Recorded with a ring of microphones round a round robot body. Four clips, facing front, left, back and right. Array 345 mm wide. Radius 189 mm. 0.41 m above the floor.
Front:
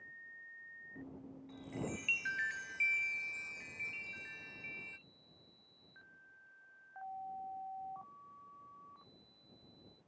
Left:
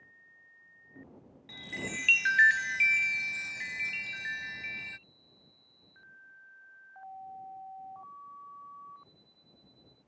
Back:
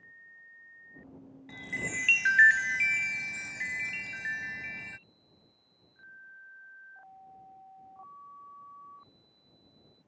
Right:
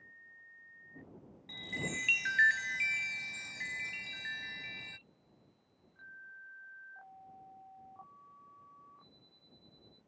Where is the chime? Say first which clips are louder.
Left 1 dB, back 4 dB; 170° left.